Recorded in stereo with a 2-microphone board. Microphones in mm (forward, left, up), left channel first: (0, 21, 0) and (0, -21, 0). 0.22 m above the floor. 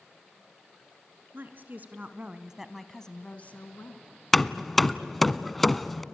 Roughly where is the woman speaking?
Right.